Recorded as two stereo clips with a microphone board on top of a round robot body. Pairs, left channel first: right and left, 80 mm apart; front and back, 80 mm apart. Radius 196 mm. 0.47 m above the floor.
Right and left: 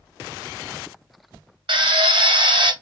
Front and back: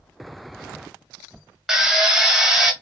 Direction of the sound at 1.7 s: 95° left.